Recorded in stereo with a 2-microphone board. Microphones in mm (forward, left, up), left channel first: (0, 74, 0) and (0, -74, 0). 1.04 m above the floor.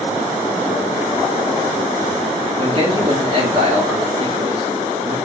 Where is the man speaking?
40° right (ahead or behind), 3 m.